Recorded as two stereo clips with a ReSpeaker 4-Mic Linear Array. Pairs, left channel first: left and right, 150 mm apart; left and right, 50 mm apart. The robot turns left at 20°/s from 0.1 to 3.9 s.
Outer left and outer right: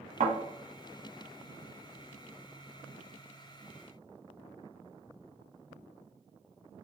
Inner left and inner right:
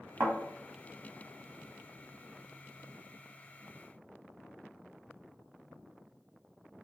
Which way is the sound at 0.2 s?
50° right (ahead or behind).